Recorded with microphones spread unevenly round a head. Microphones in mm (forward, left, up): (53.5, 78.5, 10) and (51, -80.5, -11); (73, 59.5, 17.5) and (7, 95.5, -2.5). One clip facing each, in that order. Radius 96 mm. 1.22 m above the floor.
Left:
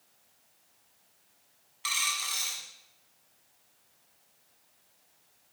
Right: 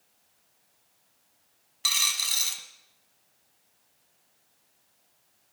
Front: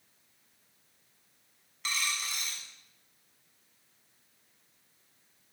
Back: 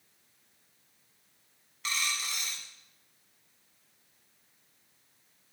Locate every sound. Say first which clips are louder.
1.8 s a dropped coin: left 1 dB, even; 90° right, 1.3 m